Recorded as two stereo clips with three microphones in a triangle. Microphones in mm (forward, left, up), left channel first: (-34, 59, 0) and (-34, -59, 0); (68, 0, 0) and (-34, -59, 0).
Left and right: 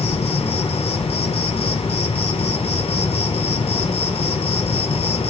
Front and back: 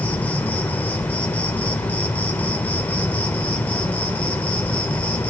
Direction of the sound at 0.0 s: 105° left.